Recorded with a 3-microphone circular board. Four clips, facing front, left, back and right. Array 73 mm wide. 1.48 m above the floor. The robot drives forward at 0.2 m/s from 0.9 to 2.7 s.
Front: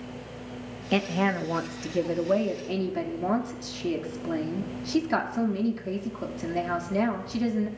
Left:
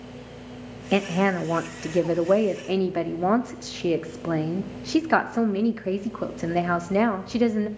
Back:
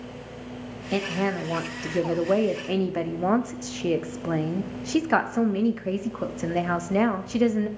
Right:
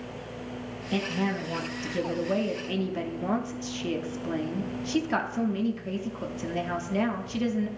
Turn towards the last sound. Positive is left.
turn(degrees=120)